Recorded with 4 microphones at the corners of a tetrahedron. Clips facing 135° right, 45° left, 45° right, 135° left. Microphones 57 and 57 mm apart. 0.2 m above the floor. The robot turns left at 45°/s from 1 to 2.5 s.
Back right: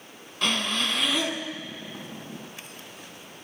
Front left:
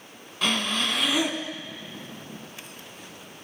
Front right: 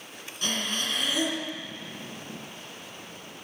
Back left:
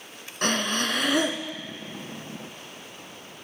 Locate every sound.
0.4 s breathing: 135° left, 1.2 m; by 1.4 s 115° left, 1.2 m